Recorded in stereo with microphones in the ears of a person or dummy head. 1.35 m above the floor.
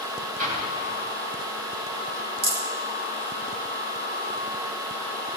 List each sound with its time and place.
0.4 s an explosion: 45° right (ahead or behind), 4 m
2.4 s a rattle: 35° right (ahead or behind), 3 m